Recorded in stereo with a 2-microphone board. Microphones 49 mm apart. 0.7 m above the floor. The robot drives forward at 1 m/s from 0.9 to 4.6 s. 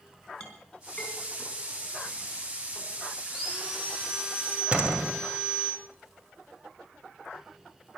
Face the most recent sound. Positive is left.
turn(degrees=-25)  # may be behind; listen again after turning